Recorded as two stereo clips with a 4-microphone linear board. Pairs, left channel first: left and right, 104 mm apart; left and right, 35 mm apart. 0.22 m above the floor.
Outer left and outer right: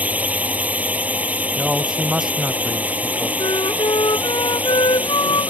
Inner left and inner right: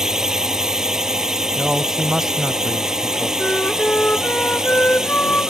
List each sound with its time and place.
0.0 s a drone: 15° right (ahead or behind)
1.6 s a man speaking: 5° right (ahead or behind)
3.4 s a flute: 55° left (ahead or behind)